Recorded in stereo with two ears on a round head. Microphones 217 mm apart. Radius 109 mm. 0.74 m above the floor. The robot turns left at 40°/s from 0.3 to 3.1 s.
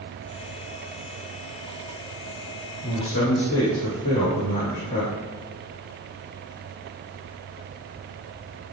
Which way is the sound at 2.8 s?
70° left (ahead or behind).